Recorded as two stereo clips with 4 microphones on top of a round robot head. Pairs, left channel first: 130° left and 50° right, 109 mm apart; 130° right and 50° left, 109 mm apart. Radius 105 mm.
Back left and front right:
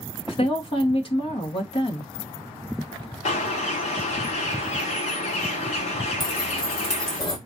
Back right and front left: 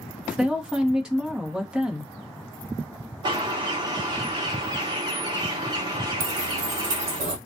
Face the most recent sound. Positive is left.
turn(degrees=75)